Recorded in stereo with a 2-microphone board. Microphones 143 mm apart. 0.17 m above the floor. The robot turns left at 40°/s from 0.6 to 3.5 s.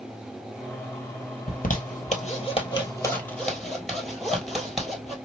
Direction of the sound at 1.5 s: 75° left (ahead or behind).